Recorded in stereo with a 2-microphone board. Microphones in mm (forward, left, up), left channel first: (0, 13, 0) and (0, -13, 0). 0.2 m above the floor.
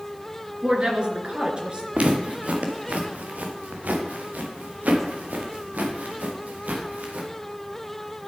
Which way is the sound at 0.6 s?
40° right (ahead or behind).